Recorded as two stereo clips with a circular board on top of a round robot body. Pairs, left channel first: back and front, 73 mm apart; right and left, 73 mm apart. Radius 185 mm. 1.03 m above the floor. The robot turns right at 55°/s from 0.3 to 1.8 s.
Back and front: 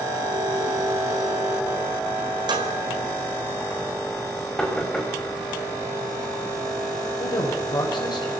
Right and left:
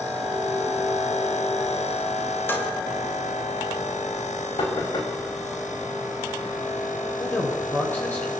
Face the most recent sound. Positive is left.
turn(degrees=-155)